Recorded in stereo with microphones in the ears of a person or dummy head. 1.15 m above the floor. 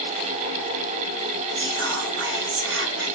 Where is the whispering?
55° right (ahead or behind), 1.2 m.